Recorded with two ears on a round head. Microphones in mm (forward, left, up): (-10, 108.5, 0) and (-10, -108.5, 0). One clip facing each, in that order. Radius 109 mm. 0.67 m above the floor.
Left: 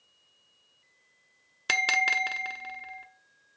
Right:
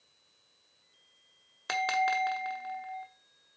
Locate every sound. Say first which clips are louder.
1.7 s a bell: right 4 dB; 40° left (ahead or behind), 0.8 m